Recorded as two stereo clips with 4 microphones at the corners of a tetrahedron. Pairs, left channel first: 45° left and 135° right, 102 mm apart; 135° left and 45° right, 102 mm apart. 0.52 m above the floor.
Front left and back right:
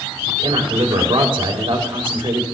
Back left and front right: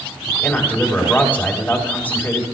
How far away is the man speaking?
About 2.5 m.